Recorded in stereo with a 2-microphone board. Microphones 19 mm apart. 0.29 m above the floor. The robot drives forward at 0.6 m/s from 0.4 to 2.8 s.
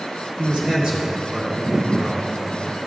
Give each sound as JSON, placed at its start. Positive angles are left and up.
{"t": 0.4, "sound": "a man speaking", "side_deg": -45, "distance_m": 3.5}